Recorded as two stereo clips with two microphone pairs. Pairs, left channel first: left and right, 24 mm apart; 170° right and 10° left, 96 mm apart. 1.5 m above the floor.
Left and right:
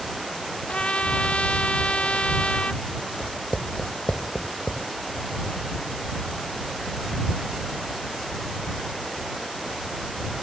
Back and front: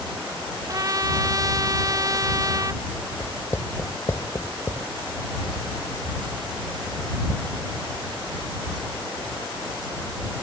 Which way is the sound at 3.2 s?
130° left.